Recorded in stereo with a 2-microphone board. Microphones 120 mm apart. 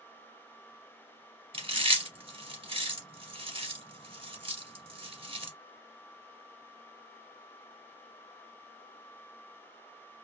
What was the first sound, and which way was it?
Chewing, 50° right (ahead or behind).